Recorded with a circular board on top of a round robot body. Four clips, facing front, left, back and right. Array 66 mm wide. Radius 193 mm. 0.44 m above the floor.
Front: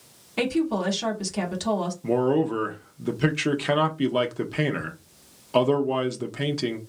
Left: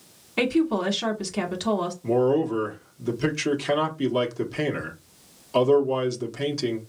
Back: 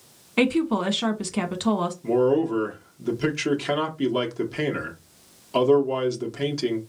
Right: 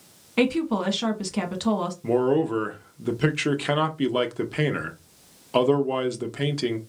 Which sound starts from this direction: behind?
A woman speaking, at 0.4 s.